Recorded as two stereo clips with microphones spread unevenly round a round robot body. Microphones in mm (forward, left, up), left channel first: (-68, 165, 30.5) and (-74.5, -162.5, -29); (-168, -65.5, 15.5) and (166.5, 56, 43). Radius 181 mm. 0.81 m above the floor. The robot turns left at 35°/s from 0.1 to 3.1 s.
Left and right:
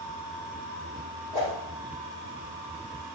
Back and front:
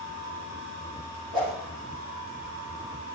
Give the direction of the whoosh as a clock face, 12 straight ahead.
1 o'clock.